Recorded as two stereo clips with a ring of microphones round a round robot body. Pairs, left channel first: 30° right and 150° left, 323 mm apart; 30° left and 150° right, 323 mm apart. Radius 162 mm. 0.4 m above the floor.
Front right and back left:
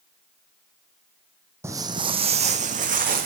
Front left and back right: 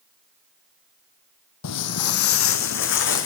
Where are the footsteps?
70° left, 0.9 m; by 3.3 s 85° left, 1.7 m.